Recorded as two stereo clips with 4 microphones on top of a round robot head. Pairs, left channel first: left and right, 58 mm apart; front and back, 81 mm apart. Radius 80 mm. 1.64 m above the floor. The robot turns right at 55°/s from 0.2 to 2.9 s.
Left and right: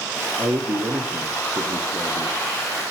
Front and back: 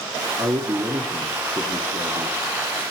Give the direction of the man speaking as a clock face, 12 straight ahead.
4 o'clock.